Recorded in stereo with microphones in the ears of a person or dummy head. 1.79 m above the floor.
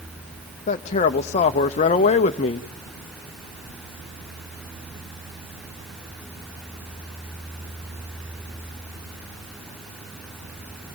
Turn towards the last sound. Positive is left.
turn(degrees=40)  # may be behind; listen again after turning